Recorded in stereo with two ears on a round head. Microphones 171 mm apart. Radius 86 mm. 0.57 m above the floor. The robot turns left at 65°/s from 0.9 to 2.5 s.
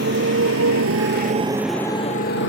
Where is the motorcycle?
55° right (ahead or behind); by 2.5 s 70° left (ahead or behind).